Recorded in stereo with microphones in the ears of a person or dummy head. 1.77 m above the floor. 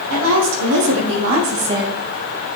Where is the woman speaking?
75° right (ahead or behind), 1.9 m; by 2.0 s 5° left (ahead or behind), 0.6 m.